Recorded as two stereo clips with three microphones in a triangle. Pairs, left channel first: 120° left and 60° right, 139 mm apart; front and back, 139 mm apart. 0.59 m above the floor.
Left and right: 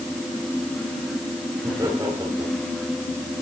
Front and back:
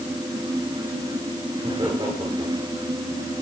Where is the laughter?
120° right, 10 m.